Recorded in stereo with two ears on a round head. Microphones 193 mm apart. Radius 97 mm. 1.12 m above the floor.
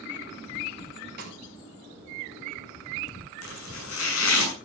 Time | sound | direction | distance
1.2 | a snare drum | 50° right (ahead or behind) | 4 m
3.4 | chopping | 85° left | 7 m